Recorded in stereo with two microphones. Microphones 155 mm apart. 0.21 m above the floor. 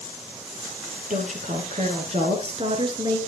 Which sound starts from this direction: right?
A woman speaking, at 1.1 s.